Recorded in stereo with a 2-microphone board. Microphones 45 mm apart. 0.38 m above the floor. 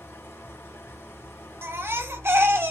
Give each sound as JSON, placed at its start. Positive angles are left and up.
{"t": 0.0, "sound": "an engine running", "side_deg": 70, "distance_m": 1.8}
{"t": 1.6, "sound": "a baby crying", "side_deg": -70, "distance_m": 0.9}